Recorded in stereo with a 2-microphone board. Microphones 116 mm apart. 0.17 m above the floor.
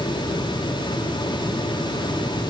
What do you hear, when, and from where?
Only background noise.